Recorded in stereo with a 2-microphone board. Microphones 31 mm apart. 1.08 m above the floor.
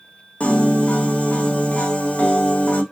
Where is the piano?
45° left (ahead or behind), 0.7 m.